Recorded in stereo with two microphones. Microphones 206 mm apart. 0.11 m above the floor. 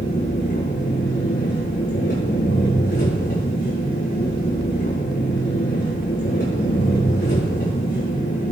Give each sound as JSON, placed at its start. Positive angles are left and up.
{"t": 0.0, "sound": "an engine running", "side_deg": 55, "distance_m": 6.0}